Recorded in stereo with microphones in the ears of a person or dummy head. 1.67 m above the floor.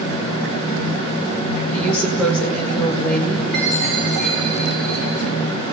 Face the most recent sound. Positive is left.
turn(degrees=0)  # may be behind; listen again after turning